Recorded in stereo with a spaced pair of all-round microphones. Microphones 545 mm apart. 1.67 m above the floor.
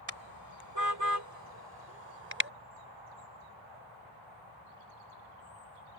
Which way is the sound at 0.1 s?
40° right (ahead or behind).